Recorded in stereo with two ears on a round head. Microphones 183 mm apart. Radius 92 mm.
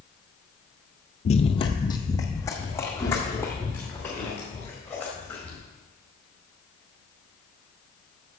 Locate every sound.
1.2 s running footsteps: 35° left (ahead or behind), 0.6 m; by 5.6 s 10° left (ahead or behind), 4 m